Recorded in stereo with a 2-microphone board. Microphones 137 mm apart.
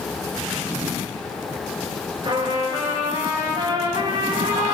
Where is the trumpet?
35° right (ahead or behind), 9.5 m.